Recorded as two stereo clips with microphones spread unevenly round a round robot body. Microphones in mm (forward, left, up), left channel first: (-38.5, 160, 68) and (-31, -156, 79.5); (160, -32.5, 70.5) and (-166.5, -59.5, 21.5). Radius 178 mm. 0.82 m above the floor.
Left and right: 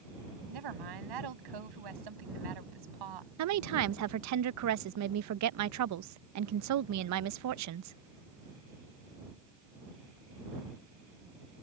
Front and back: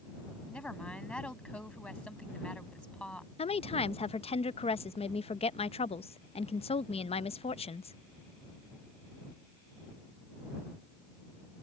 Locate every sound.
0.5 s a woman speaking: 80° right
3.4 s a woman speaking: 70° right